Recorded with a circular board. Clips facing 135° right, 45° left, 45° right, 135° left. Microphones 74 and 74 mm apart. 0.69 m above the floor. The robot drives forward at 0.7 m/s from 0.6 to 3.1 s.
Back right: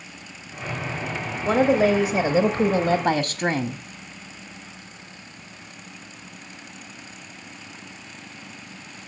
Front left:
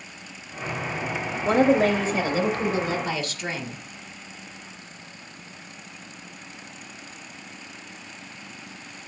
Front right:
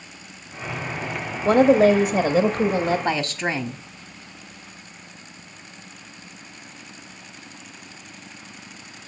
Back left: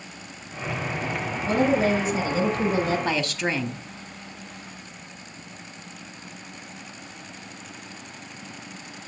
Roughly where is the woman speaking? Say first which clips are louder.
Back right 1 dB, front right 7 dB; ahead right.